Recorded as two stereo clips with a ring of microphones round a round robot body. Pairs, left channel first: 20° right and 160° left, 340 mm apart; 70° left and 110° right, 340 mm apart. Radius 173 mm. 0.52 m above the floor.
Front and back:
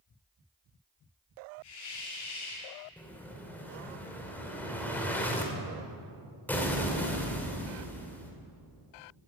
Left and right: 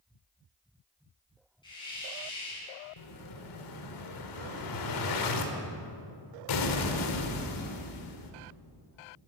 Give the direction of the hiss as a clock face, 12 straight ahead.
12 o'clock.